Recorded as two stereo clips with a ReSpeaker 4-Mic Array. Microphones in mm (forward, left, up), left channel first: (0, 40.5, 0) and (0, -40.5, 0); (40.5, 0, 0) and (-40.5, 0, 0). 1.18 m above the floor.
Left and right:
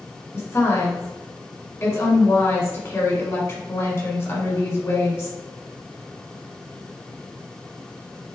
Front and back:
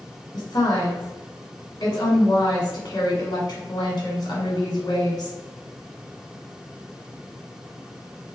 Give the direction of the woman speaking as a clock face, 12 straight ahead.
11 o'clock.